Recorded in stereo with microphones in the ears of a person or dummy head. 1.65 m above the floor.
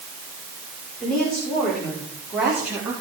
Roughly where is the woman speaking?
Centre.